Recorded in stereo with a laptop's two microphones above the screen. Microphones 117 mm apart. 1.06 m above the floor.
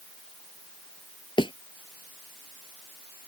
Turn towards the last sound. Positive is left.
turn(degrees=45)  # may be behind; listen again after turning